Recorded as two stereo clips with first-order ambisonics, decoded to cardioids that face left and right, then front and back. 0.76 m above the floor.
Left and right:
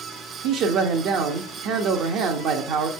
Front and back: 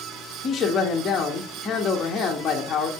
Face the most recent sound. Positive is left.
turn(degrees=-65)